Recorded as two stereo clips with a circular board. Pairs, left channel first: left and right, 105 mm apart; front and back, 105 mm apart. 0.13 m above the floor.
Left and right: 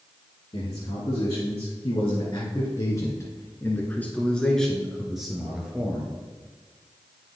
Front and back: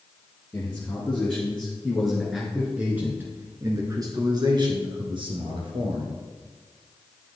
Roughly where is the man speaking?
Left.